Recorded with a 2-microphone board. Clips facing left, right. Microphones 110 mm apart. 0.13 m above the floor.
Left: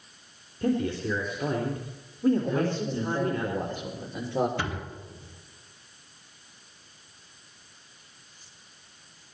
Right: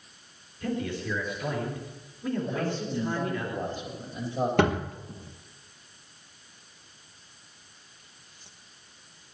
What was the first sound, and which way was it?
A man speaking, 40° left (ahead or behind).